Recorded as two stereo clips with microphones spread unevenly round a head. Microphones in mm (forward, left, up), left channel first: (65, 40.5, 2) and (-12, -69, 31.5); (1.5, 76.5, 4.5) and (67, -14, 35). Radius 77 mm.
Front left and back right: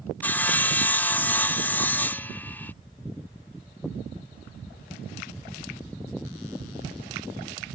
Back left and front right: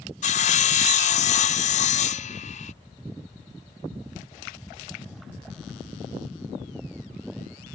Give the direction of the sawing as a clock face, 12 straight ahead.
8 o'clock.